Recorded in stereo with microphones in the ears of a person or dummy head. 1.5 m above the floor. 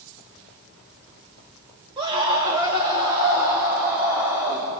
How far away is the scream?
About 3.5 m.